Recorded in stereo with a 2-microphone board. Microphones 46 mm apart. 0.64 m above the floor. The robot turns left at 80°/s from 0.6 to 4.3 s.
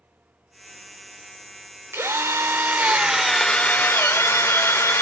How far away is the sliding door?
I don't hear a sliding door.